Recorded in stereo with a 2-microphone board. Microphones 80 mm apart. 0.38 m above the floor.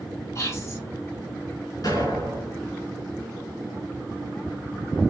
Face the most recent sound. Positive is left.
turn(degrees=55)  # may be behind; listen again after turning